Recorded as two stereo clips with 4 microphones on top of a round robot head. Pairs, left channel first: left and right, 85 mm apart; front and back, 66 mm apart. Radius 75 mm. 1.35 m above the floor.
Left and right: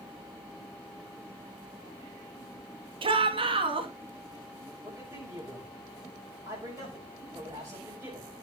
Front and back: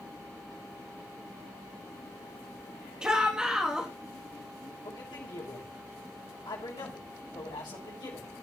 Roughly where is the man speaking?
Ahead right.